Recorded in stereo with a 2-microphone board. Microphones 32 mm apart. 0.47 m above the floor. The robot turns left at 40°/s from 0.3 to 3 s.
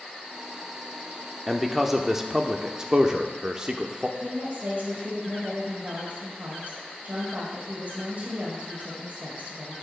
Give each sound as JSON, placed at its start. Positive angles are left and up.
{"t": 1.5, "sound": "a man speaking", "side_deg": 5, "distance_m": 0.7}
{"t": 4.2, "sound": "a woman speaking", "side_deg": -50, "distance_m": 1.8}